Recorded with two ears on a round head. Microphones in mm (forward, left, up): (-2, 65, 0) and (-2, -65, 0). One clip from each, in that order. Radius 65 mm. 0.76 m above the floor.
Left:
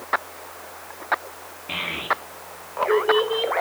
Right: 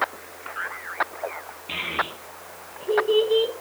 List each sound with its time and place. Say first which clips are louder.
1.7 s a child speaking: left 2 dB; 10° right (ahead or behind), 9.5 m; by 3.5 s centre (ahead or behind), 10.5 m